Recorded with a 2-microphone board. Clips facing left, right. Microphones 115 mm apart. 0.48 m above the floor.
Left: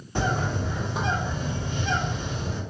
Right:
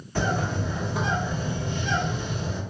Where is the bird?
20° left (ahead or behind), 1.4 m.